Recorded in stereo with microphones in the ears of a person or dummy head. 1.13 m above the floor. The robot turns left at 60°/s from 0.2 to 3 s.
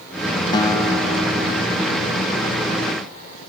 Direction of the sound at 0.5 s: 30° left.